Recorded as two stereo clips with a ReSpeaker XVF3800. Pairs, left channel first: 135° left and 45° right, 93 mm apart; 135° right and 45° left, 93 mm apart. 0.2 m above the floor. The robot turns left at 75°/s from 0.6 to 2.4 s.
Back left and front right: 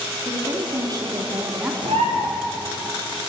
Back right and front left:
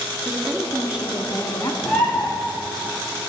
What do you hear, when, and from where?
0.2 s a woman speaking: 10° right, 1.9 m; by 1.7 s 95° right, 1.9 m
1.8 s a bird: 40° right, 3 m; by 2.3 s 75° right, 3 m